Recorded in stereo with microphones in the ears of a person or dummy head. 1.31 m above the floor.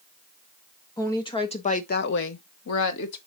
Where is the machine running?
I don't hear a machine running.